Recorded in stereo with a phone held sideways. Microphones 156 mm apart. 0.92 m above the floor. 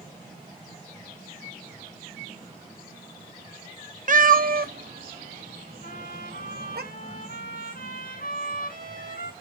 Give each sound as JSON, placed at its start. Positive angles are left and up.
{"t": 4.1, "sound": "a cat meowing", "side_deg": -55, "distance_m": 0.5}
{"t": 5.8, "sound": "a trumpet", "side_deg": 70, "distance_m": 6.5}